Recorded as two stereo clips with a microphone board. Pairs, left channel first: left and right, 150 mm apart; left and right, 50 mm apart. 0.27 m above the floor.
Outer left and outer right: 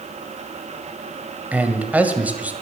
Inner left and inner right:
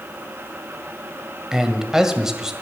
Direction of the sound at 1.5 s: 10° right (ahead or behind).